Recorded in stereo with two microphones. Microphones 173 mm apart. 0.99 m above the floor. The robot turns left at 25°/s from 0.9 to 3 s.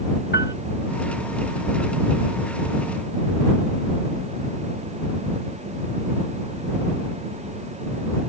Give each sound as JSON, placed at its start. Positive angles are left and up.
{"t": 0.3, "sound": "a piano", "side_deg": 85}